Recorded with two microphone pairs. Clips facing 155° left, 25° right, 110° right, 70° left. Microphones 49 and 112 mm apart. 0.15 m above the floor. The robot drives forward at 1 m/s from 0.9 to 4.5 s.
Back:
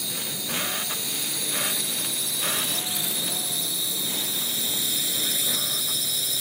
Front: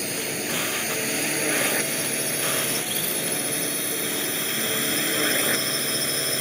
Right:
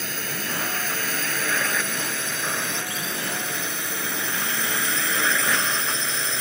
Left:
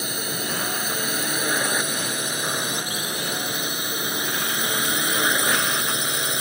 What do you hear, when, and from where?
0.0 s a drone: straight ahead